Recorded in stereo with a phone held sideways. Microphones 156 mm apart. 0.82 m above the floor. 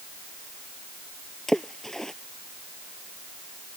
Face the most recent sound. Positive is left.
turn(degrees=5)  # may be behind; listen again after turning